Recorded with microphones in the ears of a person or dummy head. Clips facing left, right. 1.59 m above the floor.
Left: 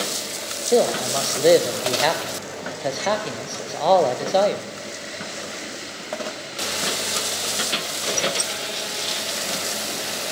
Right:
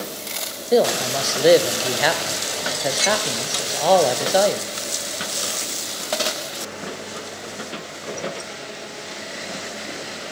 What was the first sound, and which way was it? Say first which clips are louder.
A man speaking: right 1 dB; 5° right (ahead or behind).